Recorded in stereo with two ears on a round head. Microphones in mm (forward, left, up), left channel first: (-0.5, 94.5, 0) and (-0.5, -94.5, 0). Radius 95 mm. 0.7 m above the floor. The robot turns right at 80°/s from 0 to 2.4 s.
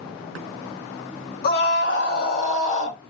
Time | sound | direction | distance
1.4 | a scream | 55° left | 0.8 m